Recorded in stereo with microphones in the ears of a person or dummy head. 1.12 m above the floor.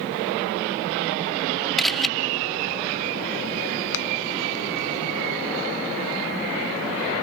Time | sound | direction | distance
1.8 | a camera shutter | 5° left (ahead or behind) | ?
3.9 | a finger snap | 75° left (ahead or behind) | ?